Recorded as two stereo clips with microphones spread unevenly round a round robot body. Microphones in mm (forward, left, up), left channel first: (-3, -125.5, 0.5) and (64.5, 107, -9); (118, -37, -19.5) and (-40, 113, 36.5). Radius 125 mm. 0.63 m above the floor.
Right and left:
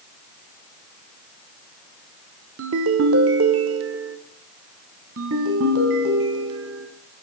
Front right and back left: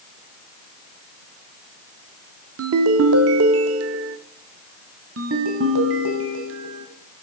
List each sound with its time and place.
2.6 s a ringtone: 110° left, 0.8 m
5.2 s a ringtone: 115° left, 1.8 m